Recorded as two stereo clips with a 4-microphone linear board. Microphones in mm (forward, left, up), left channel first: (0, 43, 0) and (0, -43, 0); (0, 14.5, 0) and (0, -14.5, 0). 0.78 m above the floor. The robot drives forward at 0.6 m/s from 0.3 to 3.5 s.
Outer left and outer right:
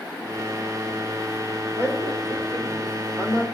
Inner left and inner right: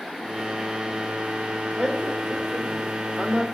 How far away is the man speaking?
About 3.5 m.